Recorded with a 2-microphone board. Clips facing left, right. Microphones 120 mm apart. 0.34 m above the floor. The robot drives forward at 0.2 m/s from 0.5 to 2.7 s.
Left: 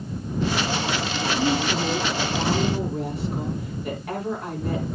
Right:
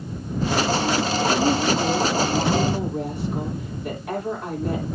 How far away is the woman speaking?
About 7.5 m.